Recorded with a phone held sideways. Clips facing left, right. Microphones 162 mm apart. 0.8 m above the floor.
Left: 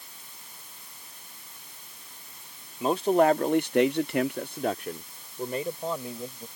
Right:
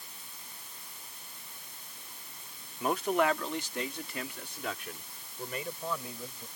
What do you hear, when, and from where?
2.8 s a man speaking: 25° left (ahead or behind)